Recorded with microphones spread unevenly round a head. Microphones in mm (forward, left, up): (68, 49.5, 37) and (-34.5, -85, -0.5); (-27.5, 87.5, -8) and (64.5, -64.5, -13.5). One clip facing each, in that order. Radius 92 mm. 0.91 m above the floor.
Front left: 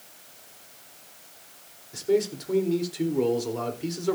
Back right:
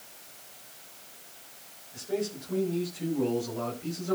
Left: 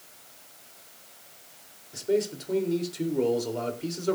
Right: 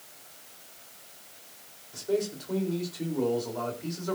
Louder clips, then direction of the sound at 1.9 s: Front left 8 dB, left 3 dB; 55° left.